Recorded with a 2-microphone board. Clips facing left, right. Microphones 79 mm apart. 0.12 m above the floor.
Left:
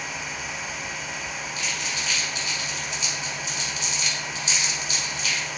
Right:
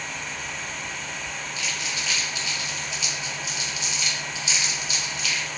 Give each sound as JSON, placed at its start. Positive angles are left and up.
{"t": 1.6, "sound": "crumpling", "side_deg": 35, "distance_m": 2.5}